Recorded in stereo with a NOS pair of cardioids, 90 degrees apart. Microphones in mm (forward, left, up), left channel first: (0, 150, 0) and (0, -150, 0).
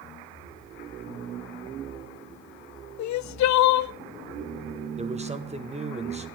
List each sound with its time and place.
3.0 s crying: 65° left, 0.6 m
5.0 s a man speaking: 20° right, 1.9 m